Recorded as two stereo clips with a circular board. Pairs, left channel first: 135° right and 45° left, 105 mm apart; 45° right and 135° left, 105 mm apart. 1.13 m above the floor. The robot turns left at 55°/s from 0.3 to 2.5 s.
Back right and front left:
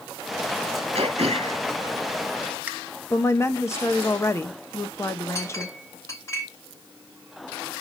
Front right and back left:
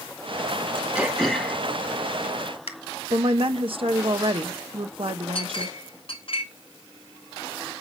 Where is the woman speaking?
165° left, 1.2 m.